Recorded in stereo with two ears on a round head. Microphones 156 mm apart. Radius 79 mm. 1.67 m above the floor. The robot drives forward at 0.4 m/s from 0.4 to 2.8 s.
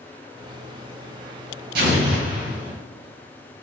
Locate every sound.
1.8 s an explosion: 70° right (ahead or behind), 1.8 m; by 2.7 s 60° right (ahead or behind), 2.0 m